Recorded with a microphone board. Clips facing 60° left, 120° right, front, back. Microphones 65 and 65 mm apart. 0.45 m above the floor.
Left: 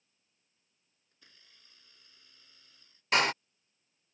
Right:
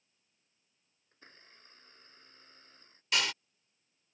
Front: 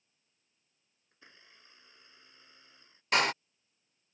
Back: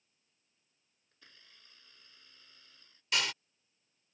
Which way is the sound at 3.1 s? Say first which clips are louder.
Left 6 dB, front 7 dB; 25° left.